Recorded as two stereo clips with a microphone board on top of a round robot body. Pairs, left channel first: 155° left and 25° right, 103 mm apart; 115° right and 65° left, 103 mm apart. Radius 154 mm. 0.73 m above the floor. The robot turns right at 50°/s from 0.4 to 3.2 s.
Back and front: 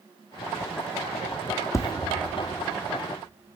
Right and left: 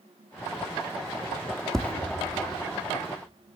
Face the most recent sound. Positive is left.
turn(degrees=-120)